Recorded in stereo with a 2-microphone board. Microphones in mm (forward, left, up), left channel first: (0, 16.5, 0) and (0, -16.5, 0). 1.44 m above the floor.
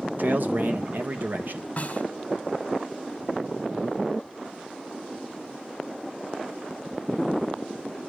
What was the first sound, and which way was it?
A man speaking, 60° right (ahead or behind).